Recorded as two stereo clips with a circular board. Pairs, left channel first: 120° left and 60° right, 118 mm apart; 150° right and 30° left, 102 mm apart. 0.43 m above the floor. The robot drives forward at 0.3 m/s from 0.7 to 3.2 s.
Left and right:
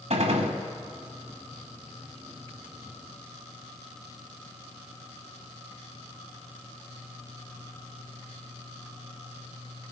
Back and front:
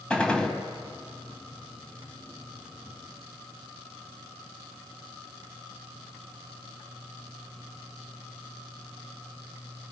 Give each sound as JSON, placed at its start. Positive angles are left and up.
{"t": 0.1, "sound": "a gunshot", "azimuth_deg": -70, "distance_m": 2.0}